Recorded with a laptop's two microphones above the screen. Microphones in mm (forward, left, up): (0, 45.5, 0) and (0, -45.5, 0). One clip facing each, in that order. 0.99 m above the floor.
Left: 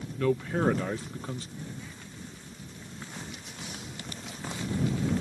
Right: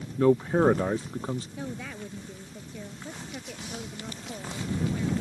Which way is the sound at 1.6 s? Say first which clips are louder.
Right 6 dB; 85° right.